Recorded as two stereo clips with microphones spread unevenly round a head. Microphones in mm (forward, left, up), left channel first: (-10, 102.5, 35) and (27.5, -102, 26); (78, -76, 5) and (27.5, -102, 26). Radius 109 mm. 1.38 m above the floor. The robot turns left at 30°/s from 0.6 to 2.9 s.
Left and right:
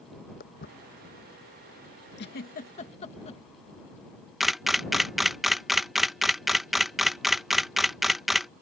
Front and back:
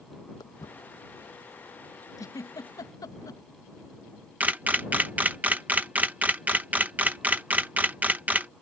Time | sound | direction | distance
0.4 | footsteps | 60° left | ?
2.2 | a giggle | 60° left | ?
4.4 | a camera shutter | 170° right | ?